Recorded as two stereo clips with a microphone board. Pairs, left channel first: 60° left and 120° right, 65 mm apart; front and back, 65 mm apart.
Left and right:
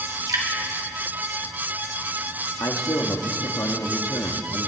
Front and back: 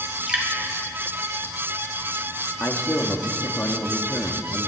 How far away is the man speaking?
About 1.5 m.